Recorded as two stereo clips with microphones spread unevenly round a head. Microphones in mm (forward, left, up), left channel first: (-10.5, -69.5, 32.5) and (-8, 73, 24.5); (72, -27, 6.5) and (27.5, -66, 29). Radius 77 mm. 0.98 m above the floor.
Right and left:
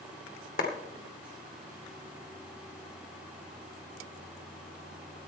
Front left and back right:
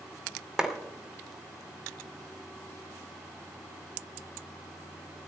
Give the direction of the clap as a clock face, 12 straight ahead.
2 o'clock.